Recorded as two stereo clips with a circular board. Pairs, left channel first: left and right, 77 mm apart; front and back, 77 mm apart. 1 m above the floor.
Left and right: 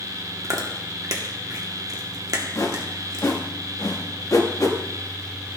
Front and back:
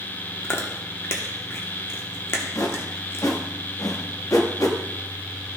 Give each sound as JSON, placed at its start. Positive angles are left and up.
{"t": 0.4, "sound": "chewing", "azimuth_deg": -55, "distance_m": 0.9}
{"t": 2.5, "sound": "a whoosh", "azimuth_deg": 45, "distance_m": 1.0}